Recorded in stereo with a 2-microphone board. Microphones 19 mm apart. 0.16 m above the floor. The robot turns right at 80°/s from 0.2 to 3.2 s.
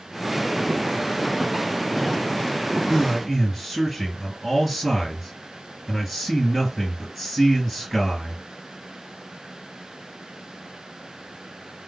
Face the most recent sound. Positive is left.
turn(degrees=-15)  # may be behind; listen again after turning